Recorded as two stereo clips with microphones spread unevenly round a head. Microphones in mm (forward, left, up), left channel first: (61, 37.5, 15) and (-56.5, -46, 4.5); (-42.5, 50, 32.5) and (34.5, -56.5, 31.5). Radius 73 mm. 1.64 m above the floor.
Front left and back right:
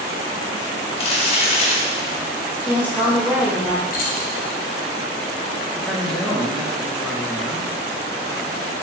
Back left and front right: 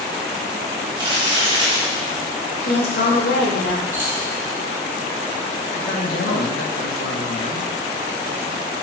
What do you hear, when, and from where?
1.0 s crumpling: straight ahead, 1.4 m
2.6 s a woman speaking: 135° left, 2 m
3.9 s keys jangling: 20° left, 1.2 m
5.7 s a man speaking: 125° left, 1.9 m